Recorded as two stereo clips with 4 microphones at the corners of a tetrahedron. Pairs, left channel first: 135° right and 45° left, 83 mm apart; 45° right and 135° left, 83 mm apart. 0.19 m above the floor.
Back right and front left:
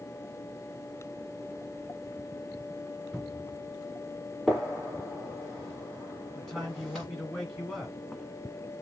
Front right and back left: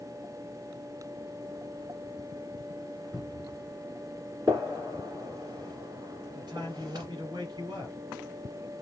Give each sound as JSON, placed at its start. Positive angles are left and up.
{"t": 3.1, "sound": "a cupboard door", "azimuth_deg": 165, "distance_m": 2.0}
{"t": 4.5, "sound": "a gunshot", "azimuth_deg": 140, "distance_m": 1.6}
{"t": 6.3, "sound": "a man speaking", "azimuth_deg": 135, "distance_m": 2.0}